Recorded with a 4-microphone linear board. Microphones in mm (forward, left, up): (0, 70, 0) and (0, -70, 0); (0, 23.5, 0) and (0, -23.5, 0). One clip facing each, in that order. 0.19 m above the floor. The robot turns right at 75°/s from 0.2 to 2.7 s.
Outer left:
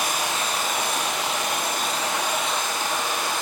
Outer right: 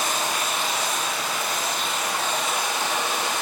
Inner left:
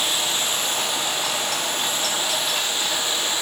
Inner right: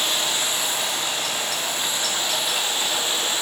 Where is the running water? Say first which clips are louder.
Even, even; 15° left, 1.7 m; by 3.4 s 160° right, 1.7 m.